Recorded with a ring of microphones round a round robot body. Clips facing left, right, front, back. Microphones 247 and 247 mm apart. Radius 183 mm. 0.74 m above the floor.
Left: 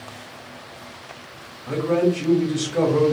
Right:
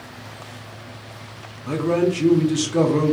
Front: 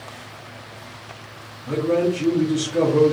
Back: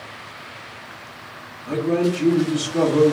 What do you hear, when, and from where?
1.7 s a man speaking: 85° right, 0.6 m